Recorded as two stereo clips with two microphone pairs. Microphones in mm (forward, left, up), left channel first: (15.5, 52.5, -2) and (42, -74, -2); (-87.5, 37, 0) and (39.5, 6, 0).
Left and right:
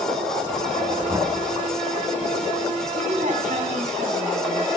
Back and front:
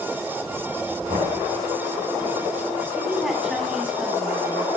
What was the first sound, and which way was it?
Knocking, 25° right.